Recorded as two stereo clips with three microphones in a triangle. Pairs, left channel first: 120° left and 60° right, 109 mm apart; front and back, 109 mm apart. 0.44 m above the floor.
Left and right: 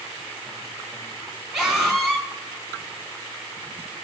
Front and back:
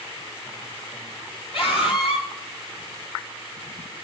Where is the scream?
25° left, 4.5 m.